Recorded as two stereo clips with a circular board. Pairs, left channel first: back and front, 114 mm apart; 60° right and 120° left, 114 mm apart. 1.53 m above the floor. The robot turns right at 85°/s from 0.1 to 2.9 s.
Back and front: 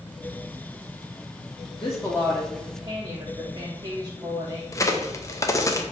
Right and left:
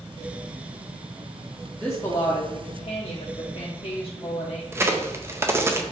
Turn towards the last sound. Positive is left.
turn(degrees=160)